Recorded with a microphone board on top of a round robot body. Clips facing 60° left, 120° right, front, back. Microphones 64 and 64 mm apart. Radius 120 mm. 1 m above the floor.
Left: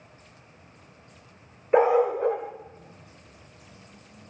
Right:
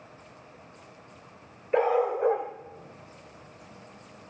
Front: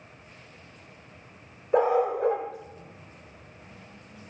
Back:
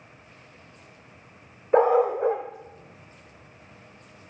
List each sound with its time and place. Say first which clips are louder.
1.7 s a dog barking: left 4 dB, back 3 dB; 125° left, 0.8 m; by 4.3 s 70° right, 1.8 m